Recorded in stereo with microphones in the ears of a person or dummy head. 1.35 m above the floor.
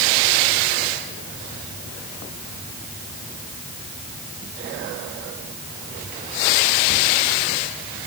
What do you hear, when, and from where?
Only background noise.